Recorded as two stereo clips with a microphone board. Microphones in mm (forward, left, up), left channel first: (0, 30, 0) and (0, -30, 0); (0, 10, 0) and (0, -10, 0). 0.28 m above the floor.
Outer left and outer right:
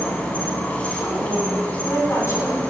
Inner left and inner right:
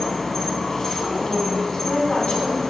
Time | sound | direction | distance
0.0 | an insect | 20° left (ahead or behind) | 1.3 m
1.0 | a woman speaking | 50° left (ahead or behind) | 2.5 m